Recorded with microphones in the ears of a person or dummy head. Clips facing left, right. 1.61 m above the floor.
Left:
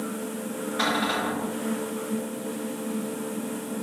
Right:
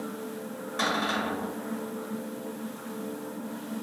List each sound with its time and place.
0.8 s a cupboard door: 50° right (ahead or behind), 1.6 m